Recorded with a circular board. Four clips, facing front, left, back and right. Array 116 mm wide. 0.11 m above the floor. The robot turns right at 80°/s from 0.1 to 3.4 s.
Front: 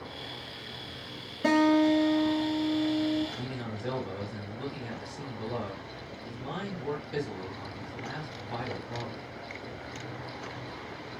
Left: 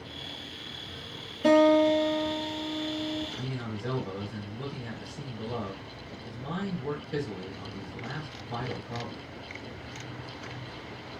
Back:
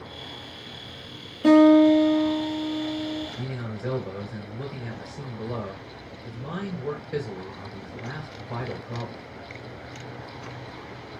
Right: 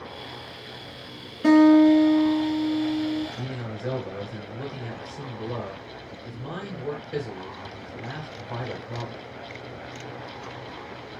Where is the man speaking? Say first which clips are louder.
Right 2 dB, back 3 dB; 170° right, 1.8 m; by 9.2 s 165° right, 1.8 m.